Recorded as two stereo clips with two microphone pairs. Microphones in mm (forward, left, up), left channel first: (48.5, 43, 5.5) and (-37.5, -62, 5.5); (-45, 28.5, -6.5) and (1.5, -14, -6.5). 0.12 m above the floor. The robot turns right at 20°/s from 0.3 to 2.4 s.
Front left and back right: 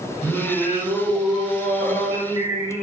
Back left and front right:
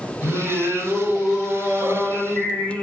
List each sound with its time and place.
0.2 s singing: 125° left, 1.8 m; by 2.8 s 170° left, 1.8 m